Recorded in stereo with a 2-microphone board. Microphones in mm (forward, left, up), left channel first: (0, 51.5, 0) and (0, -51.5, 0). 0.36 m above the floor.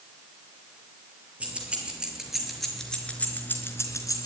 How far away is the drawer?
I don't hear a drawer.